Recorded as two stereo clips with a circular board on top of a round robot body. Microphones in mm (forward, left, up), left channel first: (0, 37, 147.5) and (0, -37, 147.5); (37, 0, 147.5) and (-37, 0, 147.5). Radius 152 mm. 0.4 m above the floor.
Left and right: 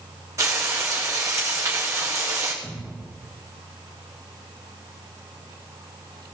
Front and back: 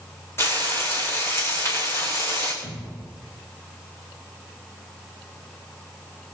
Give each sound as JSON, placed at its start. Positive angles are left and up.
{"t": 0.4, "sound": "frying", "azimuth_deg": -50, "distance_m": 7.5}
{"t": 2.6, "sound": "a cupboard door", "azimuth_deg": -25, "distance_m": 7.5}